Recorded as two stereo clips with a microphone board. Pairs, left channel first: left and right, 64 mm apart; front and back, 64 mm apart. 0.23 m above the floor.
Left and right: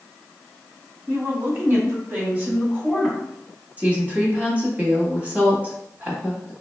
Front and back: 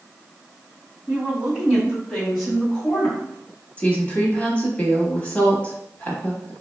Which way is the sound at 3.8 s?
45° right.